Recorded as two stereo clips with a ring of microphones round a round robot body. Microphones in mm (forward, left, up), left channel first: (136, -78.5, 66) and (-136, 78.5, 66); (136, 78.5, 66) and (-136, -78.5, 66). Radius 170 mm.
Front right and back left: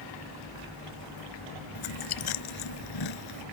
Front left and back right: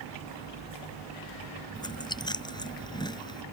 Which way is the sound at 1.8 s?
50° right.